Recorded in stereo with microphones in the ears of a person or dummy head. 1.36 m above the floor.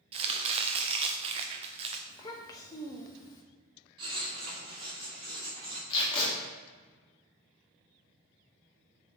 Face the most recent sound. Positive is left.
turn(degrees=25)  # may be behind; listen again after turning